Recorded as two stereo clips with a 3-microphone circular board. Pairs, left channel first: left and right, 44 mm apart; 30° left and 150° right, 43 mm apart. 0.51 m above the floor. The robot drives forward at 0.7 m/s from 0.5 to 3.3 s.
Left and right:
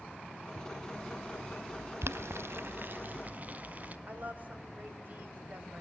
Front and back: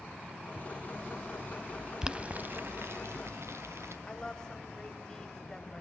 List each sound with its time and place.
2.0 s boiling: 75° right, 0.6 m; by 4.0 s 140° right, 1.0 m
4.1 s a woman speaking: 45° right, 3 m